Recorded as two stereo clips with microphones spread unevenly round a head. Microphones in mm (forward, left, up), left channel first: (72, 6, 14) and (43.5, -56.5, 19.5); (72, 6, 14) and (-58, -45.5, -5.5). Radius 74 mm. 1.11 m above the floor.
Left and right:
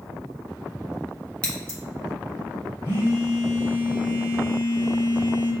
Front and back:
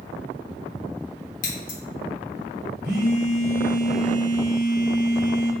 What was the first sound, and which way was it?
Scissors, 10° right.